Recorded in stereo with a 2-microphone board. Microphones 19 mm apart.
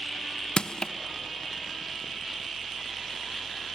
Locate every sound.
0.6 s crushing: 55° left (ahead or behind), 0.9 m